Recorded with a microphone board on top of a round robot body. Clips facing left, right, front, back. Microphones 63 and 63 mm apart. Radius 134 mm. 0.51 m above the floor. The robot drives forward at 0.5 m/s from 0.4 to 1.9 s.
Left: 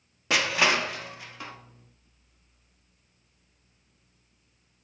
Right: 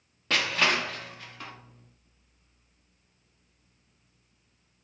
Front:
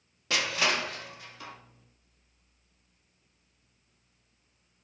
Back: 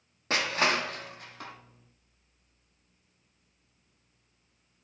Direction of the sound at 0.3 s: 160° left.